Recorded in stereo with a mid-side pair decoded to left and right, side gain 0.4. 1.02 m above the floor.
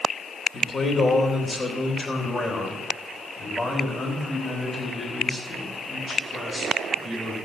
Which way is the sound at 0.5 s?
40° left.